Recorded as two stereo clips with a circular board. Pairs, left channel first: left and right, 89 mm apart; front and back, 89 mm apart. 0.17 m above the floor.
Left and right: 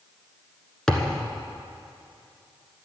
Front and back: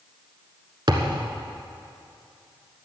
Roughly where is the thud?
Behind.